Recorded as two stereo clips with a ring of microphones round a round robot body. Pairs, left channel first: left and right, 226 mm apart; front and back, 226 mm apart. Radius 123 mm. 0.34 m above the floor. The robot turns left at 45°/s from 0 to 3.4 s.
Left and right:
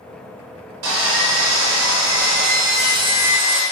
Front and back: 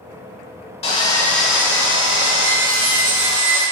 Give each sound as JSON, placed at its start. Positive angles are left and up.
{"t": 0.8, "sound": "sawing", "azimuth_deg": -60, "distance_m": 1.1}